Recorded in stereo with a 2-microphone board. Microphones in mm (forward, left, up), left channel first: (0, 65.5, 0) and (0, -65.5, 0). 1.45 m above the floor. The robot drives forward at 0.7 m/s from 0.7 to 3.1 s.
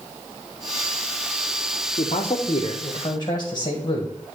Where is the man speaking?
60° left (ahead or behind), 0.9 m; by 4.1 s 30° left (ahead or behind), 1.5 m.